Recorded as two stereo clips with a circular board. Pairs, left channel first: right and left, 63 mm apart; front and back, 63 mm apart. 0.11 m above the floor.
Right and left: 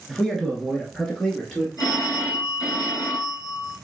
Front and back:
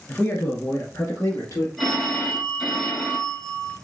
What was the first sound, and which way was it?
A man speaking, 10° right.